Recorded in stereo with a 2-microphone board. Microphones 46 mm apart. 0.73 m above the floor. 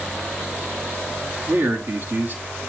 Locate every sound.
1.5 s a man speaking: 50° right (ahead or behind), 1.6 m